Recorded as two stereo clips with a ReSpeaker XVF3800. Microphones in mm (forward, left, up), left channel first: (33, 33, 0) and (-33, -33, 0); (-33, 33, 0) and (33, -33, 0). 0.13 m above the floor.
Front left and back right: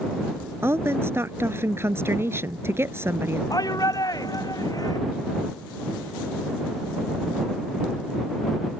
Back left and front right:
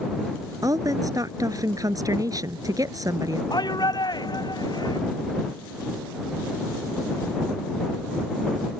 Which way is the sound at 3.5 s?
95° left.